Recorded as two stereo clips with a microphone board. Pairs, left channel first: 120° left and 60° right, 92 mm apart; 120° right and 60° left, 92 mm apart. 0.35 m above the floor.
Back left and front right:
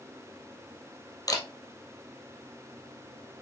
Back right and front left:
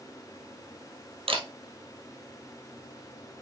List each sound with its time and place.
1.3 s a camera shutter: 70° left, 2 m